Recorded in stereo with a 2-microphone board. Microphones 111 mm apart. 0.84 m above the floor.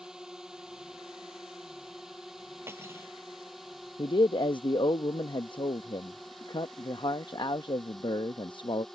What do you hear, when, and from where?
0.0 s a drone: 5° right (ahead or behind); by 8.9 s centre (ahead or behind)
2.7 s cutlery clinking: 20° right (ahead or behind)
4.0 s a man speaking: 45° left (ahead or behind)